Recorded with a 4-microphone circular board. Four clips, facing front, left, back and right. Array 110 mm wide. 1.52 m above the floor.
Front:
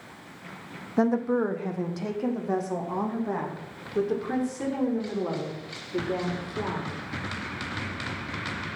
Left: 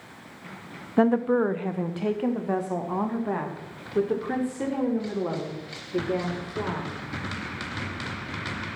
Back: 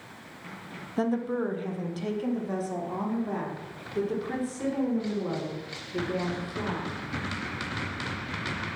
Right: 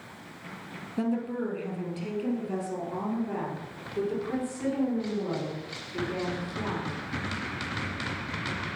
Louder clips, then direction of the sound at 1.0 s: Left 9 dB, front 4 dB; 70° left.